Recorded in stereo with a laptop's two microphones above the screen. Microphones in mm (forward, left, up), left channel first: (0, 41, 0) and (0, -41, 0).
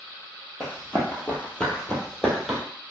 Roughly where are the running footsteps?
Left.